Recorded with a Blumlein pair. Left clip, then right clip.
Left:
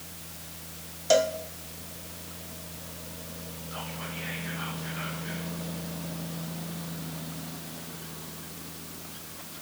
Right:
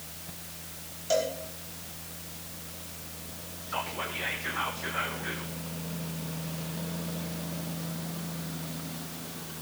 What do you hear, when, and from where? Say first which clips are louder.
1.1 s a cowbell: left 5 dB; 25° left, 1.5 m
3.7 s whispering: right 6 dB; 60° right, 1.8 m